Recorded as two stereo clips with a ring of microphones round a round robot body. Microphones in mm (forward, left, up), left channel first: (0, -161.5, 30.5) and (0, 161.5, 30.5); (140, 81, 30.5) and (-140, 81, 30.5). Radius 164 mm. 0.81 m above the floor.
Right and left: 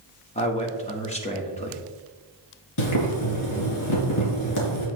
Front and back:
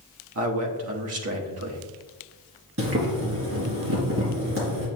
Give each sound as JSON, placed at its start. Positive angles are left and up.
{"t": 0.3, "sound": "a man speaking", "azimuth_deg": -155, "distance_m": 1.5}
{"t": 2.8, "sound": "boiling", "azimuth_deg": -125, "distance_m": 3.0}